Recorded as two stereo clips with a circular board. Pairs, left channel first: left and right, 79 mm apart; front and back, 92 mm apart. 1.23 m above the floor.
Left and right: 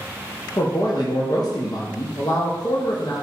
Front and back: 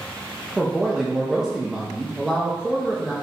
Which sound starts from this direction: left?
A man speaking, at 0.6 s.